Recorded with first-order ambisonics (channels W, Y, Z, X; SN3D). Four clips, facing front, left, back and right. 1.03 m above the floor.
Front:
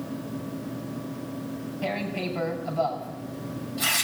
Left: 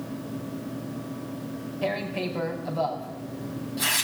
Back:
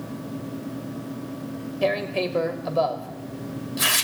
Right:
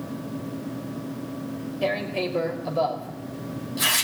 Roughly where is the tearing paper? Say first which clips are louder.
Right 3 dB, back 7 dB; behind right.